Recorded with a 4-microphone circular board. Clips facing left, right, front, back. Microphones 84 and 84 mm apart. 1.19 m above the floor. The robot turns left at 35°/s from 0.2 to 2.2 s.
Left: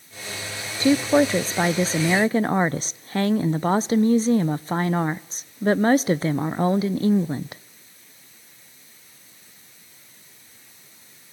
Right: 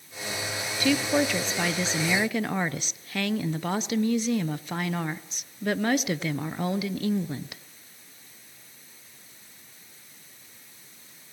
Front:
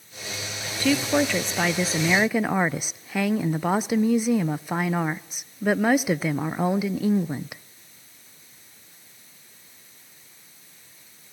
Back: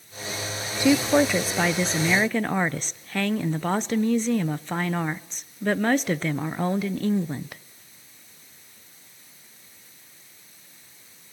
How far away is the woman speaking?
About 0.6 m.